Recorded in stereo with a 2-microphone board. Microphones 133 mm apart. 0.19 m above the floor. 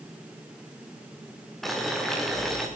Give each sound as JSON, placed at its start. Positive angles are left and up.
{"t": 1.6, "sound": "boiling", "side_deg": 0, "distance_m": 9.0}